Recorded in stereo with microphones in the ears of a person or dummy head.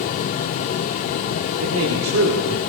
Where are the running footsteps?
I don't hear running footsteps.